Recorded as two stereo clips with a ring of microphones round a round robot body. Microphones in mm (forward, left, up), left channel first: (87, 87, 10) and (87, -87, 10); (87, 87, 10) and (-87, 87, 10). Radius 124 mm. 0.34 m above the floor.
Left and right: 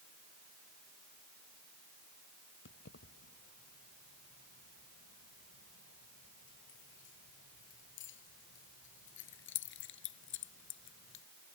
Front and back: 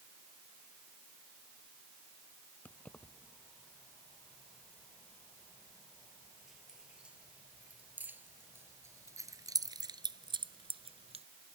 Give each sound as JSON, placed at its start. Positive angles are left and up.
{"t": 2.6, "sound": "keys jangling", "azimuth_deg": 80}